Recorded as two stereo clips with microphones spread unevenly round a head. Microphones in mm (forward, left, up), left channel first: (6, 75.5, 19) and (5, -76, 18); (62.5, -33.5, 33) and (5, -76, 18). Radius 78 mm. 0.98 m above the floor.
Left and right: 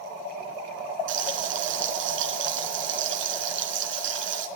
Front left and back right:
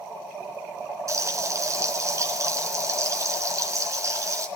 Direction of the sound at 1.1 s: 95° right.